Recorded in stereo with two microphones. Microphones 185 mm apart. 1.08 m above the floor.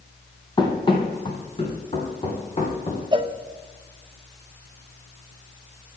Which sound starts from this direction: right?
A cowbell, at 3.1 s.